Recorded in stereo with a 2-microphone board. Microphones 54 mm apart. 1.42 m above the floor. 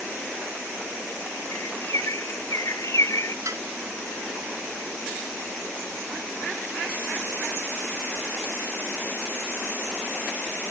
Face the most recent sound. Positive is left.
turn(degrees=-70)  # may be behind; listen again after turning